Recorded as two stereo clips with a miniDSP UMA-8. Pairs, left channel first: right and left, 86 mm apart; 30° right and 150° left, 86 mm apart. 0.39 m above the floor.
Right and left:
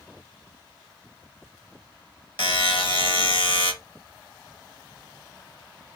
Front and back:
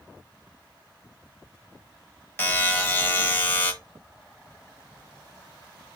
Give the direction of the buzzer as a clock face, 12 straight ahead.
3 o'clock.